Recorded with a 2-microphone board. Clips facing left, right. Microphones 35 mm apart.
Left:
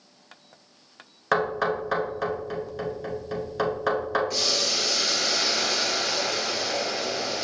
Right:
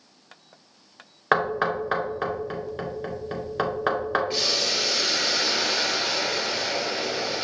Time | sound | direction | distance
1.3 | knocking | 20° right (ahead or behind) | 0.8 m
4.3 | boiling | 35° right (ahead or behind) | 1.3 m